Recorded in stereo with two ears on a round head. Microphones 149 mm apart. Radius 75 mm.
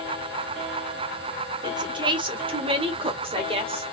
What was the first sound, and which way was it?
A woman speaking, 25° right (ahead or behind).